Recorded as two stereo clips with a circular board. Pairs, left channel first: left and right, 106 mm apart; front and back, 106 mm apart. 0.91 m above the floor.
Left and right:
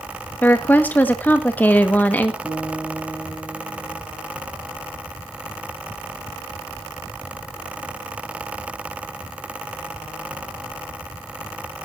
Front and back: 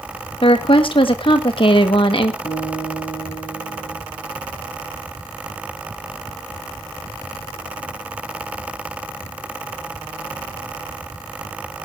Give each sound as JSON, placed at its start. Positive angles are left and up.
{"t": 0.4, "sound": "a woman speaking", "azimuth_deg": 20, "distance_m": 1.4}
{"t": 2.4, "sound": "a guitar", "azimuth_deg": 15, "distance_m": 7.5}